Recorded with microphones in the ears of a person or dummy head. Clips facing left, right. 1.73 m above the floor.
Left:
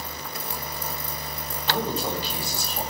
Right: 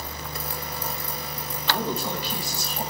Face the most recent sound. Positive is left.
turn(degrees=30)  # may be behind; listen again after turning